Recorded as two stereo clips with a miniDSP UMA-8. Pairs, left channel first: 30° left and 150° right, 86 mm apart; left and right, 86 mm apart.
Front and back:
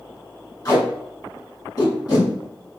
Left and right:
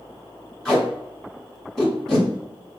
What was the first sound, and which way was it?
Tape being pulled, 5° left.